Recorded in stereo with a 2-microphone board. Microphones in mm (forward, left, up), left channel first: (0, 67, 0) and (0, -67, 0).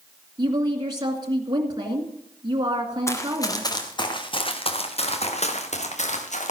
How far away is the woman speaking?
About 2 m.